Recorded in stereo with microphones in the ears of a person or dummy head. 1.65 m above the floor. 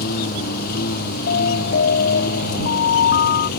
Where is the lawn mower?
50° left (ahead or behind); by 3.6 s 55° left (ahead or behind).